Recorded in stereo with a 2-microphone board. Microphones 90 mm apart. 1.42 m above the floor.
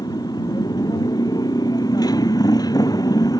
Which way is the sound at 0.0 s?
50° left (ahead or behind).